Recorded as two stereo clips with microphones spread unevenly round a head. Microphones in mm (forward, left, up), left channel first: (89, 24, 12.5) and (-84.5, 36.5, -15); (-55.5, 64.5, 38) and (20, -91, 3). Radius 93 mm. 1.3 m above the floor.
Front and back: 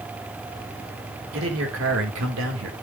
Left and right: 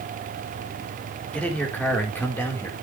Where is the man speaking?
160° right, 4 m; by 2.7 s 165° right, 4.5 m.